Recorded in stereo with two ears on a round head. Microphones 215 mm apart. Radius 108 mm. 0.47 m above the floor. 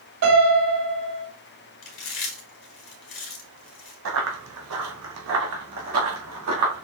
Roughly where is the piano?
Right.